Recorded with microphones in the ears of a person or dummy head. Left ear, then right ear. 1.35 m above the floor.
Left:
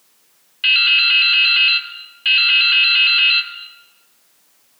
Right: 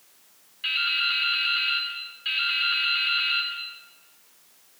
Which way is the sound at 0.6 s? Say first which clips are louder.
Left 11 dB; 60° left (ahead or behind).